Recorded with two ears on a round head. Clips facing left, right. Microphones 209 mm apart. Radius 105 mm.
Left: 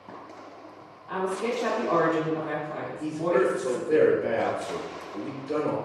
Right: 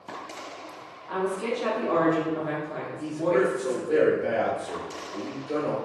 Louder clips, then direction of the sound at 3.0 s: Even; centre (ahead or behind).